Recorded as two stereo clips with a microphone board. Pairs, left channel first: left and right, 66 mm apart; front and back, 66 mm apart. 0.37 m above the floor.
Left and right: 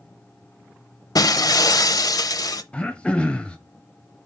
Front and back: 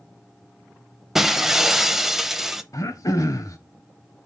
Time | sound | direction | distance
1.1 | breaking glass | 95° left | 0.6 m
2.7 | throat clearing | 20° left | 1.0 m